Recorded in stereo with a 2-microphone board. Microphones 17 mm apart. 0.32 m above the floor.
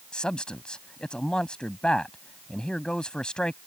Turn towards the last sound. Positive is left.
turn(degrees=55)  # may be behind; listen again after turning